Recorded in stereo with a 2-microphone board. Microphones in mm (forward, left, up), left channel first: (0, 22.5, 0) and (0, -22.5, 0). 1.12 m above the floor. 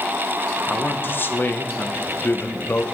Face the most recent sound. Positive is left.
turn(degrees=45)  # may be behind; listen again after turning